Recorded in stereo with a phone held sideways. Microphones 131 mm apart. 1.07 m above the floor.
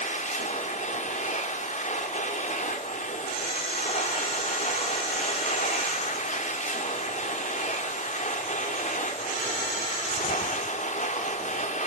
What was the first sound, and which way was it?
A machine running, 80° left.